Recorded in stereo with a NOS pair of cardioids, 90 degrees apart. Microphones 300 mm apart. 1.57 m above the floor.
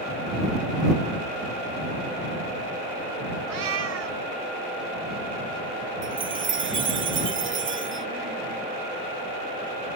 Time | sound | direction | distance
3.5 | a cat meowing | 60° right | ?
6.0 | a chime | 40° right | ?